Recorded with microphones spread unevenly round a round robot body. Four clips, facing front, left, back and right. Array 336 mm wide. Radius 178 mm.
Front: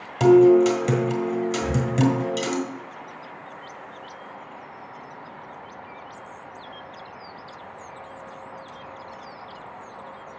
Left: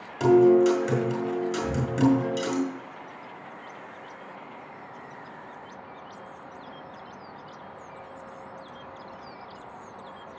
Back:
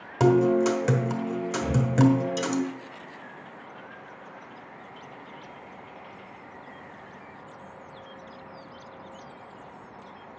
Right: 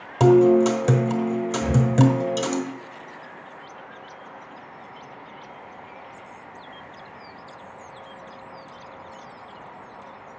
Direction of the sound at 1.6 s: 75° right.